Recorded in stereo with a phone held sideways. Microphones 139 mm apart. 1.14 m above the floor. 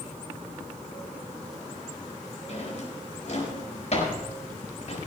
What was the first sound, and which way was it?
A drawer, 55° left (ahead or behind).